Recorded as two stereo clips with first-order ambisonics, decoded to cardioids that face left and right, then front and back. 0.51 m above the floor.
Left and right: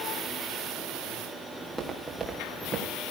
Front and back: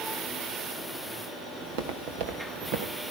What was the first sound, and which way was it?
Footsteps, 175° right.